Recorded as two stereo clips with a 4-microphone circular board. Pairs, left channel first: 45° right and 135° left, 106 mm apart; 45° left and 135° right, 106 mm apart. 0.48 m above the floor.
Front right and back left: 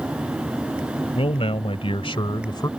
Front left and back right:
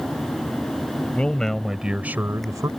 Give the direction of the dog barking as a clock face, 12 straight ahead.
No dog barking in this recording.